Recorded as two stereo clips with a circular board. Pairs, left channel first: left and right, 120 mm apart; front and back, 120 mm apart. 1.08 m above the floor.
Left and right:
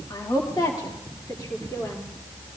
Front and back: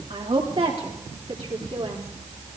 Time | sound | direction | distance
0.1 | a woman speaking | 145° left | 3 m